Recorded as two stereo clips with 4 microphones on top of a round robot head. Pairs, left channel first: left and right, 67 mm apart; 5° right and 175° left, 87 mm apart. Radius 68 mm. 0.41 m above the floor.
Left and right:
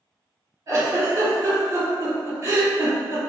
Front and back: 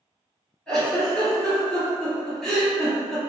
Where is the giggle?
80° right, 1.9 m.